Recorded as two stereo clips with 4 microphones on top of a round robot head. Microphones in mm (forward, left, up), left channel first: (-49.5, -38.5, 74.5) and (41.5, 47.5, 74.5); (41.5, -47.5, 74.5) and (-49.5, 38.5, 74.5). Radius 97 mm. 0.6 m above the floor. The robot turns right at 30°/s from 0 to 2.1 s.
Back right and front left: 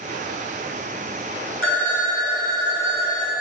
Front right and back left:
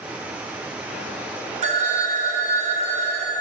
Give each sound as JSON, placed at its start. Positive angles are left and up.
{"t": 1.6, "sound": "a phone ringing", "azimuth_deg": 145, "distance_m": 0.9}